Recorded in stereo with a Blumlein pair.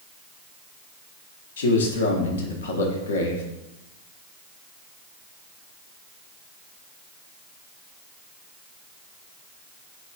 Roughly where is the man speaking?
Ahead left.